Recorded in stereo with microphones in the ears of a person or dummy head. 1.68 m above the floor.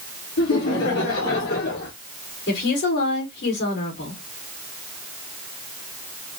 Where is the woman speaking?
60° left (ahead or behind), 3.5 m.